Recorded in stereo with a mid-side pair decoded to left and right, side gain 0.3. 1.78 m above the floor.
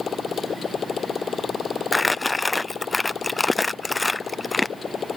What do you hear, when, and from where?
0.0 s a motorcycle: 65° left
1.9 s crumpling: 30° left